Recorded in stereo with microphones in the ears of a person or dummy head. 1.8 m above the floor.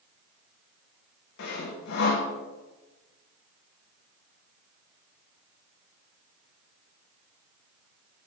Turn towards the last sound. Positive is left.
turn(degrees=70)  # may be behind; listen again after turning